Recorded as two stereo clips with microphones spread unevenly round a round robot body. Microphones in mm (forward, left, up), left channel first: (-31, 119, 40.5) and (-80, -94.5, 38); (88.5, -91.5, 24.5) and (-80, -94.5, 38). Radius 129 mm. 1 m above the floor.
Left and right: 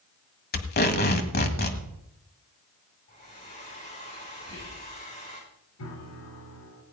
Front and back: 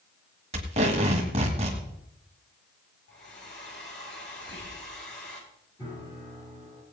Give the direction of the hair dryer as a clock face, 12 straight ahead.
11 o'clock.